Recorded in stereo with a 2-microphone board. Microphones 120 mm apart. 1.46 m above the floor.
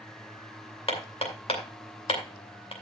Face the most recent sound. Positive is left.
turn(degrees=55)  # may be behind; listen again after turning